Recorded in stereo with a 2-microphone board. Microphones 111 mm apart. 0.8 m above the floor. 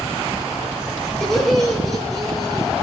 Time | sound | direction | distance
1.2 | laughter | centre (ahead or behind) | 1.1 m